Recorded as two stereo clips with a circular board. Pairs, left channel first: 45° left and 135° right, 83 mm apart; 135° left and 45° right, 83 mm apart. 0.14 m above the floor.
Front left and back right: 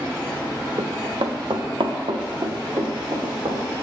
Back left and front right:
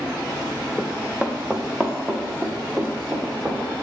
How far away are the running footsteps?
About 0.8 m.